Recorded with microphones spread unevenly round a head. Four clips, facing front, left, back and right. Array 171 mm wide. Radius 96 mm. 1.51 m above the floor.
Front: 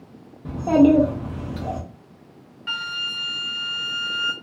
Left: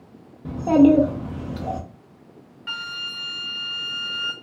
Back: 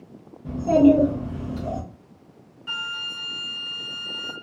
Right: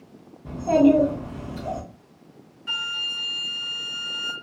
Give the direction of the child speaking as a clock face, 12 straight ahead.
9 o'clock.